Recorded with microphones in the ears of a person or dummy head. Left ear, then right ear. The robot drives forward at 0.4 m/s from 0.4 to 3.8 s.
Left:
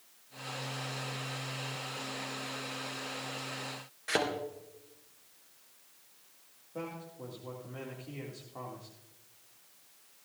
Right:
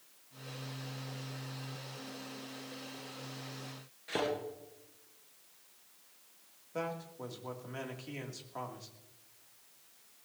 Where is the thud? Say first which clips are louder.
Left 4 dB; 45° left (ahead or behind), 3 m.